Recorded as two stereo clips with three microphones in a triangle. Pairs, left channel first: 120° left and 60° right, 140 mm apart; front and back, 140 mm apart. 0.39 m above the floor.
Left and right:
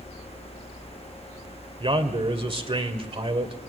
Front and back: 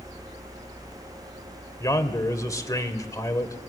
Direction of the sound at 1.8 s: 50° right.